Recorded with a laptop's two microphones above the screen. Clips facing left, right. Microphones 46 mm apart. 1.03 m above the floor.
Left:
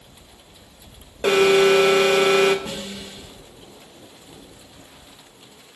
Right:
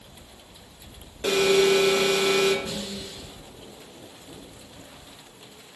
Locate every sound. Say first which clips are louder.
1.2 s an alarm: left 5 dB; 55° left (ahead or behind), 1.1 m
2.6 s a snare drum: left 1 dB; 40° left (ahead or behind), 3 m